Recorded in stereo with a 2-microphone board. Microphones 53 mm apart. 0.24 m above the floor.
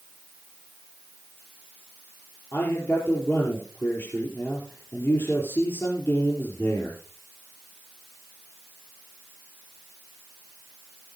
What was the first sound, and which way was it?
A man speaking, 50° left (ahead or behind).